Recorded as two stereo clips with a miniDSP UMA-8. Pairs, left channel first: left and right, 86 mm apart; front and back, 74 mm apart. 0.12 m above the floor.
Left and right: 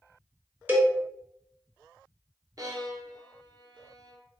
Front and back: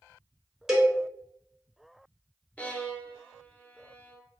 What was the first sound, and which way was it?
A cowbell, 105° right.